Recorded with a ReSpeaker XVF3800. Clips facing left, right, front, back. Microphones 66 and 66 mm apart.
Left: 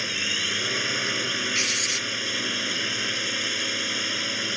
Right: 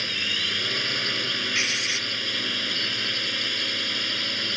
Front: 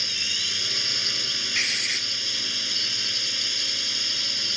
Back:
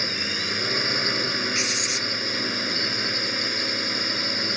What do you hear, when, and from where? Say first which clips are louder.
0.0 s a drone: even, back 5 dB; 165° left
1.6 s writing: right 1 dB, back 2 dB; 40° right